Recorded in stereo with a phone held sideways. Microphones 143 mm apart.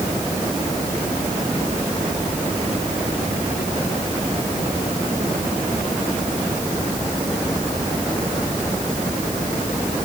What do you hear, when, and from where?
Only background noise.